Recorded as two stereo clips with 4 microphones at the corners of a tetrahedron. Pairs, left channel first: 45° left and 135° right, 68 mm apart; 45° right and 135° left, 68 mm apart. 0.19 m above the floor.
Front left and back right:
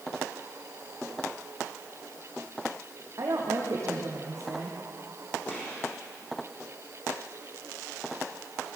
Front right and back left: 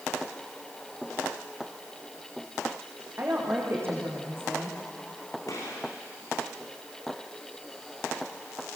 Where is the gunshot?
15° right, 7 m.